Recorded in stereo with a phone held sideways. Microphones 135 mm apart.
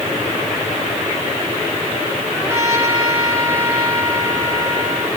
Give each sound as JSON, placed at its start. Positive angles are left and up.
{"t": 2.3, "sound": "a trumpet", "side_deg": -15, "distance_m": 6.5}